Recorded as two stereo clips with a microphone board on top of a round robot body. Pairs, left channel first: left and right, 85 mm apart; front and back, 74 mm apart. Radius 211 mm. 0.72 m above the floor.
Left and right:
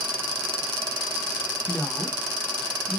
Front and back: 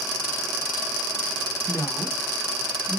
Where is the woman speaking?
40° left, 0.8 m; by 3.0 s 10° left, 1.5 m.